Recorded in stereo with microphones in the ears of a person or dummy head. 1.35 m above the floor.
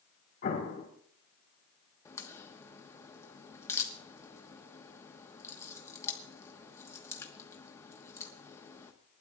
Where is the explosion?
45° left (ahead or behind), 3 m.